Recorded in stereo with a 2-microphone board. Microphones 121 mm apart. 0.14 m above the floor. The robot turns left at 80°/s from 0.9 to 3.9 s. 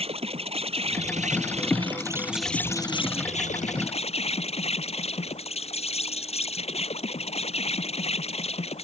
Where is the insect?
60° right; by 8.9 s 60° left.